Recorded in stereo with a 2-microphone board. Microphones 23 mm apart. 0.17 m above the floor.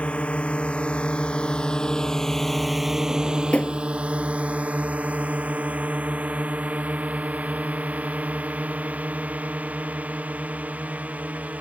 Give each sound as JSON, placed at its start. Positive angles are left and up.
{"t": 0.0, "sound": "a drone", "side_deg": 65}
{"t": 3.1, "sound": "a drawer", "side_deg": 60}